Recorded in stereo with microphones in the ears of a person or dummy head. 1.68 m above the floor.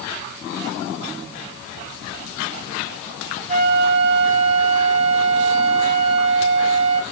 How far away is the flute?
About 1.4 m.